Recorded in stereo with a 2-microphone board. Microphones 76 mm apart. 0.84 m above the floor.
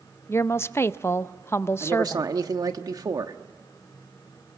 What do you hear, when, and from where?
0.3 s a woman speaking: 35° left (ahead or behind), 0.5 m
1.8 s a man speaking: 55° right (ahead or behind), 1.3 m